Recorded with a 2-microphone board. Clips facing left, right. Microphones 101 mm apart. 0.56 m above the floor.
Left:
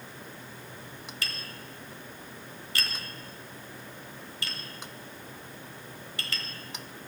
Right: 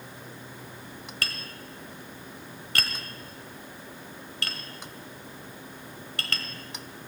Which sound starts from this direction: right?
Tapping, at 1.2 s.